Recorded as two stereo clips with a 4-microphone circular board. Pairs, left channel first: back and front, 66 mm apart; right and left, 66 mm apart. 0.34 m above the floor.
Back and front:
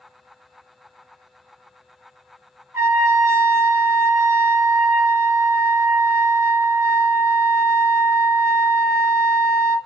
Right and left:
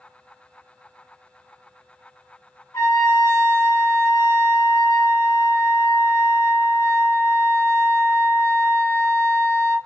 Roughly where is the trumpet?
Ahead right.